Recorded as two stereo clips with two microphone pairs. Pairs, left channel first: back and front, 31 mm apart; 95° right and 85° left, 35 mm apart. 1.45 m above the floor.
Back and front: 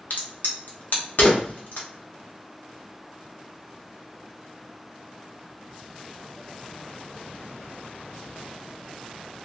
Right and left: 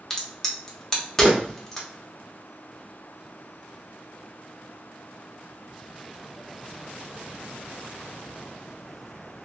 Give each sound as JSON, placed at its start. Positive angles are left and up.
{"t": 0.1, "sound": "a crack", "azimuth_deg": -170, "distance_m": 0.9}